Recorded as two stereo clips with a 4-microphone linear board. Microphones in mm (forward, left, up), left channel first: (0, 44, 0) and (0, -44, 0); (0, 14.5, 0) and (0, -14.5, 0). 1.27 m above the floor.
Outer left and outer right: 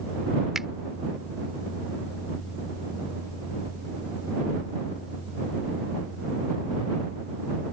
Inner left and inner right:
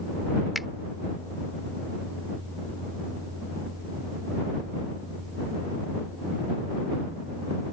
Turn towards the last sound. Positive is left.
turn(degrees=-5)  # may be behind; listen again after turning